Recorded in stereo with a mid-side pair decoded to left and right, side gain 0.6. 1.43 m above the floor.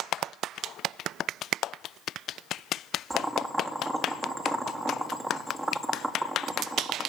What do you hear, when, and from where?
3.1 s boiling: 10° right, 3.5 m